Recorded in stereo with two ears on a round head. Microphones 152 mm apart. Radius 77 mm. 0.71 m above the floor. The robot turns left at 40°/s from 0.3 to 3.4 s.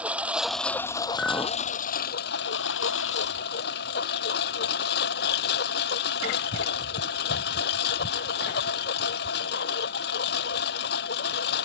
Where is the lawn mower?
170° right; by 11.7 s 65° left.